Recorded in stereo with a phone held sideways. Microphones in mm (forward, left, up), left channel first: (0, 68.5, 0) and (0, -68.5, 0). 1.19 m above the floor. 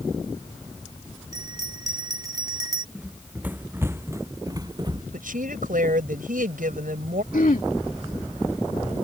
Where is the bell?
25° right (ahead or behind).